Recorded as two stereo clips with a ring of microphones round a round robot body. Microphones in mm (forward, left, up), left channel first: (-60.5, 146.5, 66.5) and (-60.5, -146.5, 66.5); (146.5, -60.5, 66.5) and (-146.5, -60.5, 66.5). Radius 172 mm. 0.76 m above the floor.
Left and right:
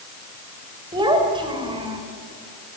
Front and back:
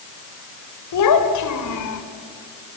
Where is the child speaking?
15° right, 3.5 m.